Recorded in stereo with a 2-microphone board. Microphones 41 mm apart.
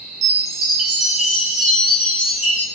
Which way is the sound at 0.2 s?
15° right (ahead or behind).